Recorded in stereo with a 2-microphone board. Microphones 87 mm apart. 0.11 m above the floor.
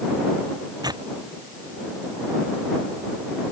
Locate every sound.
0.8 s tearing paper: 50° right (ahead or behind)